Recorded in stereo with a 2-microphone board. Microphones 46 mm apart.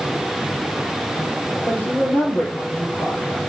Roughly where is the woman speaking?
Left.